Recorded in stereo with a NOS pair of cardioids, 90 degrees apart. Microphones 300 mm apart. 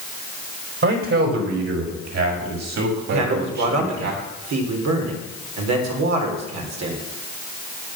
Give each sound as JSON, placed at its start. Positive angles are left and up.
{"t": 0.8, "sound": "a man speaking", "azimuth_deg": -50, "distance_m": 4.5}
{"t": 3.1, "sound": "a man speaking", "azimuth_deg": -70, "distance_m": 4.5}